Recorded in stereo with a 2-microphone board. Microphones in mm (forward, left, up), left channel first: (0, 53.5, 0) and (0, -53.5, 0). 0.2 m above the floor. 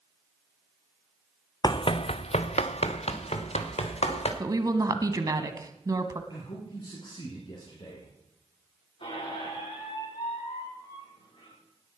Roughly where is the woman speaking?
Right.